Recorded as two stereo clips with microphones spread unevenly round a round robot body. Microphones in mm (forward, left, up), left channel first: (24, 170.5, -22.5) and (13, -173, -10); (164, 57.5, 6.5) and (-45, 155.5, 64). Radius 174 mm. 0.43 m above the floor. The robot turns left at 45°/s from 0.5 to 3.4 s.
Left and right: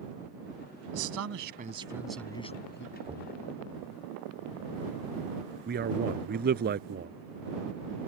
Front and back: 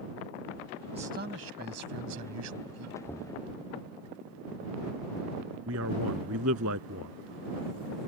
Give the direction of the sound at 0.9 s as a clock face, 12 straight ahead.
4 o'clock.